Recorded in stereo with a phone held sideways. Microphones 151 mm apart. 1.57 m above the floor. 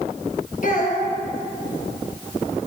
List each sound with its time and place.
0.6 s a child speaking: 55° left (ahead or behind), 1.6 m